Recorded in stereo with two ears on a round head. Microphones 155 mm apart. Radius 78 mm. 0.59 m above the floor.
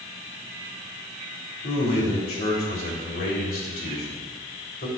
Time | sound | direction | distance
1.6 | a man speaking | 60° left (ahead or behind) | 2.5 m